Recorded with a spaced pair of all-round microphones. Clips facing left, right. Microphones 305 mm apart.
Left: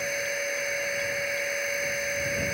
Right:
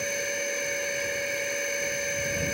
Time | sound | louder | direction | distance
0.0 | a machine running | even | 40° right (ahead or behind) | ?